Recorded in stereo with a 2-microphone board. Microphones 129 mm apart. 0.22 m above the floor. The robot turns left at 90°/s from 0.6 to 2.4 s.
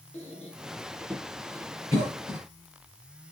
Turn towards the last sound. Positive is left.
turn(degrees=-15)  # may be behind; listen again after turning